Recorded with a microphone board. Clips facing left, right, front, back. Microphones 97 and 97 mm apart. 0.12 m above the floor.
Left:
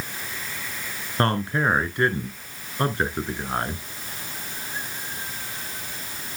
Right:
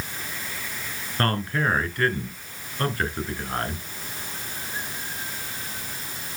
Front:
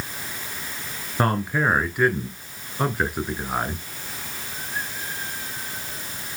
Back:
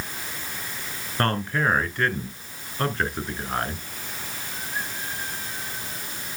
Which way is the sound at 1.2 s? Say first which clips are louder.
Left 2 dB, front 2 dB; 65° left.